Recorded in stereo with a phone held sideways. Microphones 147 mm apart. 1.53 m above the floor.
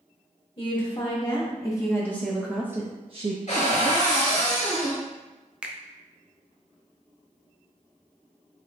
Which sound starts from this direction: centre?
A finger snap, at 5.6 s.